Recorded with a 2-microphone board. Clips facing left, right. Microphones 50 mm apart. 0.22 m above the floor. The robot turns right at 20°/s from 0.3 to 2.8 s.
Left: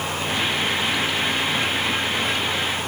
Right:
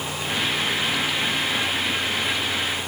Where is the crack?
No crack in this recording.